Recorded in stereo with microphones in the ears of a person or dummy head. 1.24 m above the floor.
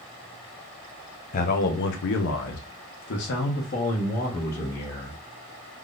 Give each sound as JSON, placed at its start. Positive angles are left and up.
{"t": 1.3, "sound": "a man speaking", "side_deg": 40, "distance_m": 0.8}